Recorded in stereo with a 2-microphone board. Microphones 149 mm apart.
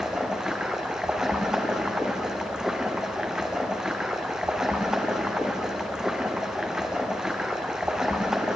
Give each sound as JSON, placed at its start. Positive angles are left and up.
{"t": 0.0, "sound": "running water", "side_deg": -5, "distance_m": 1.0}